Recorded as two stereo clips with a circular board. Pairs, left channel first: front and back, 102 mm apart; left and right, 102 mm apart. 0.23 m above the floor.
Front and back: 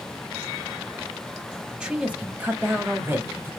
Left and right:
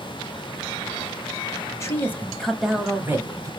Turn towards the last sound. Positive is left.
turn(degrees=-125)